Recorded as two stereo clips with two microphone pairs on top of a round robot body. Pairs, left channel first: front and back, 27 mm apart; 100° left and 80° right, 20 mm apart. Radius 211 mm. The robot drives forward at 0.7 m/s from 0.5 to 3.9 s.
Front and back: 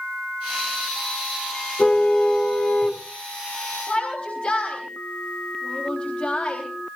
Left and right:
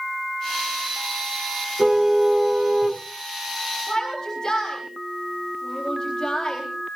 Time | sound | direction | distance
1.8 | a car horn | 30° right | 3.5 m
3.9 | a shout | 40° left | 4 m